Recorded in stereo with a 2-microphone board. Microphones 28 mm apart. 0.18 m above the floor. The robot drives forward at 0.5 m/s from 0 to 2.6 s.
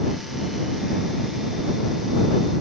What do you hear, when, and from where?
Only background noise.